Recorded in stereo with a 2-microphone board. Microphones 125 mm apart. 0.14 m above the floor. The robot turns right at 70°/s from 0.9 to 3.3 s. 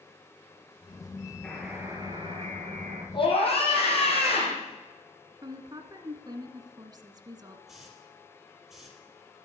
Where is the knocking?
I don't hear knocking.